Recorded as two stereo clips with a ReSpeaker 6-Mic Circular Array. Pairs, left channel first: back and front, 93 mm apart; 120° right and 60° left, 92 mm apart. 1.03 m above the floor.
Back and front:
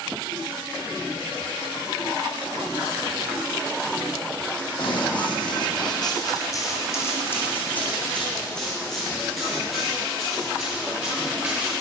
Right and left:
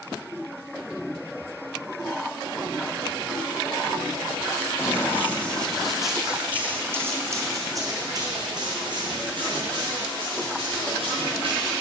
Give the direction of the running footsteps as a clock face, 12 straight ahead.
6 o'clock.